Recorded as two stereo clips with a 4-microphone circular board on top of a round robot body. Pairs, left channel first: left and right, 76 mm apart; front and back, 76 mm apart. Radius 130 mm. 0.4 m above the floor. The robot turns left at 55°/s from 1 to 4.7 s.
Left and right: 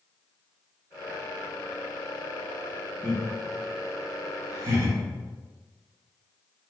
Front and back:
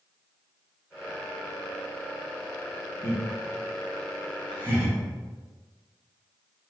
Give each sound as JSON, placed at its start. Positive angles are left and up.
{"t": 3.0, "sound": "laughter", "azimuth_deg": -35, "distance_m": 1.5}